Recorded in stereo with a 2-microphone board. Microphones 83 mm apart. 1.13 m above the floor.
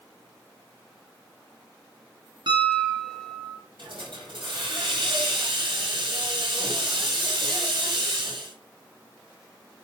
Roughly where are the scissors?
No scissors in this recording.